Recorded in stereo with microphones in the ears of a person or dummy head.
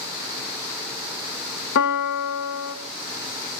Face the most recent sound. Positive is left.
turn(degrees=75)  # may be behind; listen again after turning